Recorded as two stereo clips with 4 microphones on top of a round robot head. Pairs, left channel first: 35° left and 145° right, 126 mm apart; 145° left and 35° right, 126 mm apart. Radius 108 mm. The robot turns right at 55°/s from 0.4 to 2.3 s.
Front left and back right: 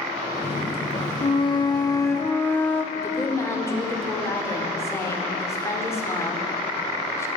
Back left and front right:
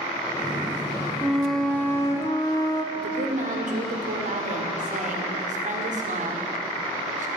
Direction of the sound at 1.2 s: 40° left.